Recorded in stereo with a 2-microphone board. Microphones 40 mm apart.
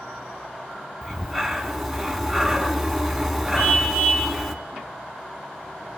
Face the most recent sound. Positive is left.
turn(degrees=35)  # may be behind; listen again after turning